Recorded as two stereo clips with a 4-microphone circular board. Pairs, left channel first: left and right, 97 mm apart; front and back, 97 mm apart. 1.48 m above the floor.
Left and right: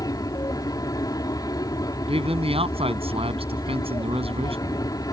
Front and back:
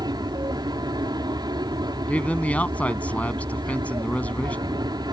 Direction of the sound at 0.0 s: 140° left.